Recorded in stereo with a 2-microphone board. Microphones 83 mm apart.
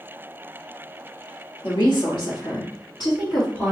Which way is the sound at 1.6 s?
65° left (ahead or behind).